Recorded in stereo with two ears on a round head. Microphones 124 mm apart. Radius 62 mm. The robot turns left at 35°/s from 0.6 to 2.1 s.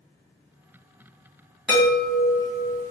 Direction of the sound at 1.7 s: 5° right (ahead or behind).